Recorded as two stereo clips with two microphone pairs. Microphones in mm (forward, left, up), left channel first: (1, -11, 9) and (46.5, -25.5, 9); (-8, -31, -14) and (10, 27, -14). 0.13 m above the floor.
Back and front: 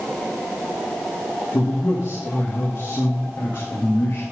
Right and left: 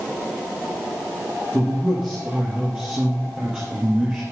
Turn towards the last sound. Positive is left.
turn(degrees=145)